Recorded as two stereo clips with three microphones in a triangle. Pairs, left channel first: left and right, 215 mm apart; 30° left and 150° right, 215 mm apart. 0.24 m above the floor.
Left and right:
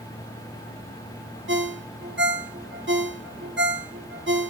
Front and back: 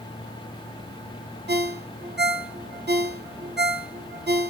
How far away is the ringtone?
About 1.9 m.